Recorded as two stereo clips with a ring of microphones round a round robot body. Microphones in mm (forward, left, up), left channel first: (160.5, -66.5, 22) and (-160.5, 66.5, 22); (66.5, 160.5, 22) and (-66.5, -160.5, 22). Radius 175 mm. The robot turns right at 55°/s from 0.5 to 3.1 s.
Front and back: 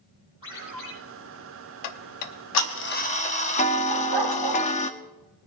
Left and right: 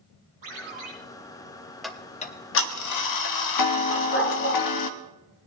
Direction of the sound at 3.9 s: 125° left.